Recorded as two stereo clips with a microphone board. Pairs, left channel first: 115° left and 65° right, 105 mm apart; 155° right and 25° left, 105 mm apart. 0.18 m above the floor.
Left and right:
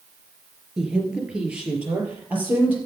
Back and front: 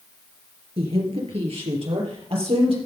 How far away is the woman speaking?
About 3.5 m.